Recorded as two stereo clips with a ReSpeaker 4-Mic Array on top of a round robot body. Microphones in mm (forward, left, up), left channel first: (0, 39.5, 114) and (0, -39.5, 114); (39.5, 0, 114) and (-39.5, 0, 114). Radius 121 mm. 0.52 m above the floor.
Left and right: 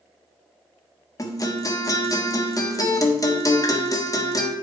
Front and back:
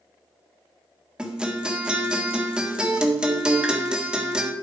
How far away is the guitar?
About 1.6 m.